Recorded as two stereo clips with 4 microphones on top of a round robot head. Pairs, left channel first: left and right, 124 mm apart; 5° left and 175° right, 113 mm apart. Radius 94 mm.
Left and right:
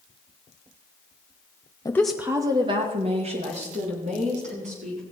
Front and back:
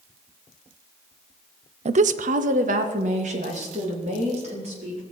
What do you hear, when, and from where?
1.9 s a woman speaking: 160° left, 0.8 m; by 5.0 s 130° right, 4.5 m